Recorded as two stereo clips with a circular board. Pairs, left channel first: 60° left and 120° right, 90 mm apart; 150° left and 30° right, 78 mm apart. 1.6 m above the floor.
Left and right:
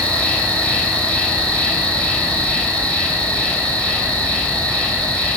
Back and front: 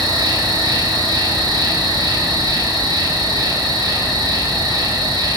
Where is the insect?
15° right, 4 m.